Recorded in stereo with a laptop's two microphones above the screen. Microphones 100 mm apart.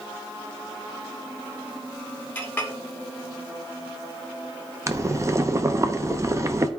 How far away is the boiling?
About 0.6 m.